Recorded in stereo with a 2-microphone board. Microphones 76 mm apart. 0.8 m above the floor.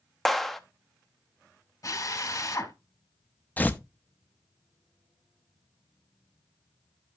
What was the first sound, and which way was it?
A clap, 5° left (ahead or behind).